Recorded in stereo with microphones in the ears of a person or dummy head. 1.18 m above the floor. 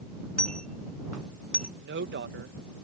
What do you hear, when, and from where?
0.4 s a dropped coin: 5° left (ahead or behind)
1.8 s a woman speaking: 50° right (ahead or behind)